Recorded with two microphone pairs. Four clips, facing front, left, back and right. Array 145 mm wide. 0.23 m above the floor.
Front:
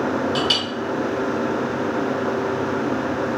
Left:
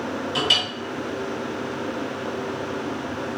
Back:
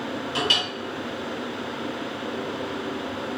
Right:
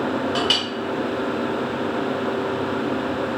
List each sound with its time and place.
0.3 s a clink: 50° right, 1.6 m